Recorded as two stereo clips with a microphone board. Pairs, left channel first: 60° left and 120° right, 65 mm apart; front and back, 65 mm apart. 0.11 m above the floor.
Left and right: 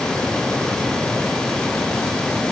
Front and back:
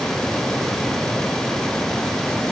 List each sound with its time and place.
Only background noise.